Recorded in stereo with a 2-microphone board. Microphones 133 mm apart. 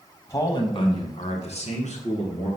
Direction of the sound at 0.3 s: 20° left (ahead or behind).